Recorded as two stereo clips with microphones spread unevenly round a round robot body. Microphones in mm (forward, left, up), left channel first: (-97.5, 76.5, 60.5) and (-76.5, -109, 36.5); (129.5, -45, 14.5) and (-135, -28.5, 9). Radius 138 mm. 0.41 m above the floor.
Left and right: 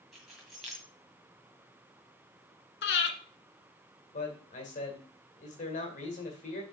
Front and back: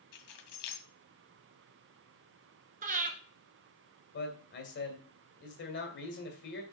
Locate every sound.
0.1 s keys jangling: 5° left, 1.8 m
2.8 s breathing: 115° left, 1.5 m
4.1 s a man speaking: 40° left, 2 m